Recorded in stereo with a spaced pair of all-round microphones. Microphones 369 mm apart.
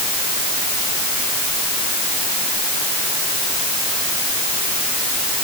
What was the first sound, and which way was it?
Only background noise.